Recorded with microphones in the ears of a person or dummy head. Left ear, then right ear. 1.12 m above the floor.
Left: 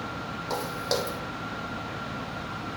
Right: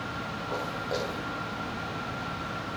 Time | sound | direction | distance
0.5 | footsteps | 60° left (ahead or behind) | 3 m